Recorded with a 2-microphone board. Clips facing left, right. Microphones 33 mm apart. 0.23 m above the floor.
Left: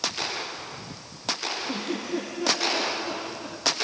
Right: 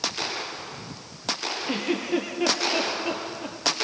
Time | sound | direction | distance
1.7 | a giggle | 55° right (ahead or behind) | 3.5 m